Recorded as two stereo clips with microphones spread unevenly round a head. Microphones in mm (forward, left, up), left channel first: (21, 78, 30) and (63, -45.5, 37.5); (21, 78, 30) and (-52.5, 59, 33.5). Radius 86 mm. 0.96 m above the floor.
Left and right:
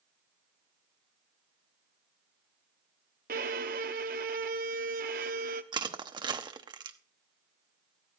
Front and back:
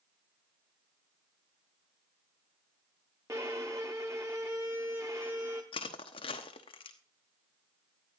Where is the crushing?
15° right, 1.0 m.